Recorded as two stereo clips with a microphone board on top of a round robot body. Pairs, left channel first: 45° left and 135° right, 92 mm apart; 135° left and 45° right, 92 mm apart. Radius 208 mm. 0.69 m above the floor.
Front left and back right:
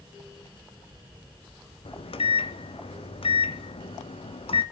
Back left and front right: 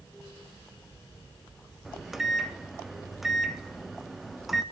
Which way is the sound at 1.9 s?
45° left.